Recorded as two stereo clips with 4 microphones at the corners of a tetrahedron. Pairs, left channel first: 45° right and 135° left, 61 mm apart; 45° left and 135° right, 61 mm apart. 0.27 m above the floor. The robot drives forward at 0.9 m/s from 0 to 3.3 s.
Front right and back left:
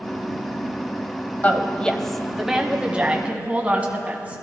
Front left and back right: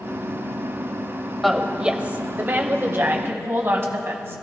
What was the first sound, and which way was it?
A woman speaking, 45° right.